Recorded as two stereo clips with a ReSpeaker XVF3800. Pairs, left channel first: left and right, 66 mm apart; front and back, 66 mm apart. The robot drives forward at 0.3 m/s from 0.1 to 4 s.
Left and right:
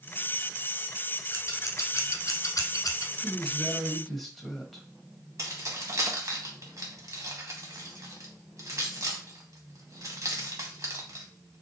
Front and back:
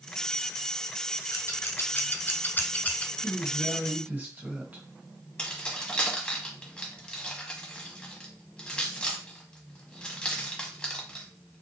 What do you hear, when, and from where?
1.3 s scissors: 45° left, 1.2 m; by 3.1 s 70° left, 0.9 m
3.2 s a woman speaking: 175° left, 1.1 m; by 4.9 s straight behind, 1.2 m
5.4 s keys jangling: 70° right, 1.3 m